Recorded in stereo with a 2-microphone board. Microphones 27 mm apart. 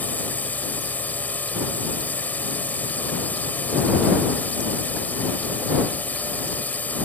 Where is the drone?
85° left.